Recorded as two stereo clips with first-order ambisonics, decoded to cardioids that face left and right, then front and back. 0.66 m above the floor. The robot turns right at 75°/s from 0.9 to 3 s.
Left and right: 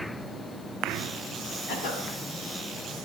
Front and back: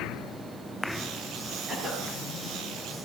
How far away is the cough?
About 7 m.